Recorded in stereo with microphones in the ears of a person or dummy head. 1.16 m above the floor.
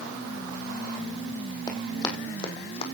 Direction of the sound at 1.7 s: 20° left (ahead or behind).